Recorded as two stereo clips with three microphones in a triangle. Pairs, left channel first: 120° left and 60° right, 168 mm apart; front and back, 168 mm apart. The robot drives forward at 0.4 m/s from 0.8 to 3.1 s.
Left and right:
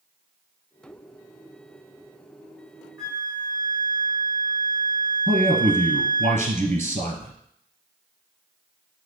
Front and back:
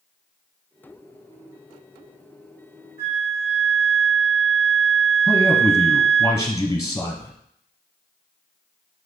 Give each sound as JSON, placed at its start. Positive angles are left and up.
{"t": 3.0, "sound": "a flute", "azimuth_deg": -155, "distance_m": 2.5}
{"t": 5.3, "sound": "a man speaking", "azimuth_deg": -60, "distance_m": 1.4}